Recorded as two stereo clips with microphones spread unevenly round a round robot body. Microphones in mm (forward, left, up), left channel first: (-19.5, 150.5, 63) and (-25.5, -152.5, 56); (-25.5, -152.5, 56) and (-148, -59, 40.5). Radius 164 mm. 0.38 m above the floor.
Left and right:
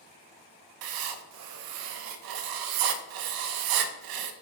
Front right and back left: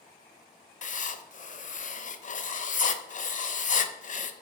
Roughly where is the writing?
Right.